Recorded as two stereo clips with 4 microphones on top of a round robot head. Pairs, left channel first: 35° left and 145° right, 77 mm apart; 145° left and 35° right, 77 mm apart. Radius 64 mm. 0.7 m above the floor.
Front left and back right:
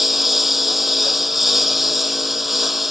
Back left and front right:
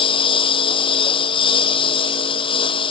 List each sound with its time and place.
0.0 s a lawn mower: 130° left